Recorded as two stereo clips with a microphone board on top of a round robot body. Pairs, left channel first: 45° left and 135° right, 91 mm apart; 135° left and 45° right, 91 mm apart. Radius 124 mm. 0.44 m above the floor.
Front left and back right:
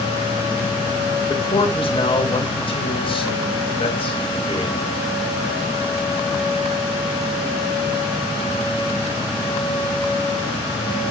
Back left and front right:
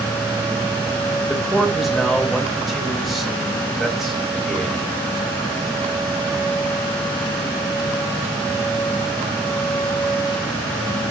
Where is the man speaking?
45° left, 4 m.